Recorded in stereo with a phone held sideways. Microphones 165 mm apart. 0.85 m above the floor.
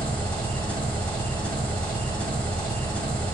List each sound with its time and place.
0.0 s an engine running: 10° left (ahead or behind), 1.3 m